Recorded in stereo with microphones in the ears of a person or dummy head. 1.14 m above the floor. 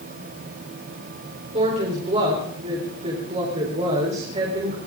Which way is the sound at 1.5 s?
35° right (ahead or behind).